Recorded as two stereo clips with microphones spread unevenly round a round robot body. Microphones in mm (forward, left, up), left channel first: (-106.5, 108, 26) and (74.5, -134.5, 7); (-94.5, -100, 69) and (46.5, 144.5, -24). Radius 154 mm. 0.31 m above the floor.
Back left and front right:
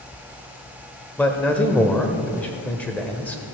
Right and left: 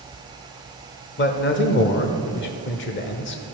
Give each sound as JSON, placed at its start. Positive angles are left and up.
{"t": 1.2, "sound": "a man speaking", "azimuth_deg": -145, "distance_m": 0.8}